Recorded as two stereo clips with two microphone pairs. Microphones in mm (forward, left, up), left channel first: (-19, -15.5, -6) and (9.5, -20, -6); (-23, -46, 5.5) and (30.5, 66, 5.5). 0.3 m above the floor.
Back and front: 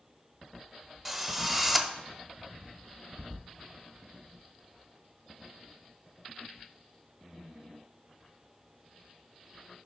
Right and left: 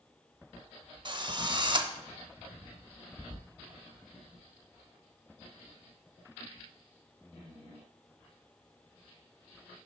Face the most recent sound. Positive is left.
turn(degrees=65)